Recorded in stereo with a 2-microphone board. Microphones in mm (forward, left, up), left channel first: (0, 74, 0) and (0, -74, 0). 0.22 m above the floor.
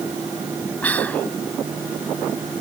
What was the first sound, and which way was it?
Whispering, 10° left (ahead or behind).